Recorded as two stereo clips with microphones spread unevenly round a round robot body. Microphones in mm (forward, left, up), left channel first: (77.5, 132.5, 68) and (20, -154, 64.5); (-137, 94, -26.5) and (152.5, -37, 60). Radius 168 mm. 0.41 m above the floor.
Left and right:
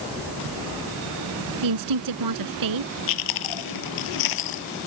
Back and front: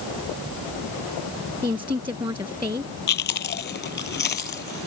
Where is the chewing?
95° left.